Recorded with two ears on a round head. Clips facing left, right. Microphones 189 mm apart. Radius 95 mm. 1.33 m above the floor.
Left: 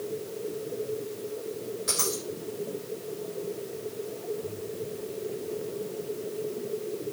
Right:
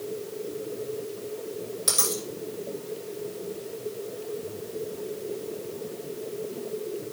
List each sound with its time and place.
1.9 s a dropped coin: 60° right (ahead or behind), 8 m